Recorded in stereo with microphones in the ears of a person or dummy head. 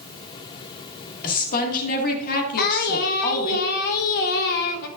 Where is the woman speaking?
50° left (ahead or behind), 1.8 m.